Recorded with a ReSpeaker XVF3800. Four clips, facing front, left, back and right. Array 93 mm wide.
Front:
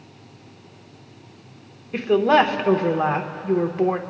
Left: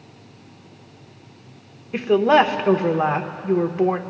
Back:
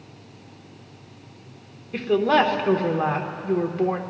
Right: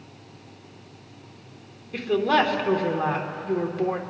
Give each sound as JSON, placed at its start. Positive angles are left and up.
{"t": 1.9, "sound": "a woman speaking", "azimuth_deg": 60, "distance_m": 1.0}